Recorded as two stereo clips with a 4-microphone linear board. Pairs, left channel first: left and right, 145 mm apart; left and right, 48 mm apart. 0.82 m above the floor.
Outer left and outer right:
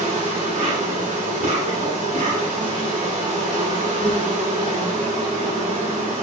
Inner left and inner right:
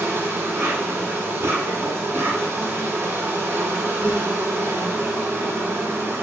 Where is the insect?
55° right (ahead or behind), 1.1 m.